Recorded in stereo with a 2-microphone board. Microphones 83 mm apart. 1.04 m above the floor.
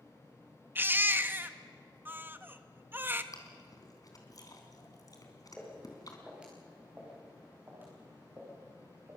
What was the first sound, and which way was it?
A baby crying, 25° right (ahead or behind).